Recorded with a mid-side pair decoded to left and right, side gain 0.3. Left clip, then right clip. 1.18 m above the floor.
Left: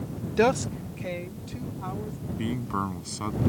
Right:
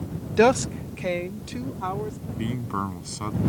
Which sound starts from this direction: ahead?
A man speaking, at 2.4 s.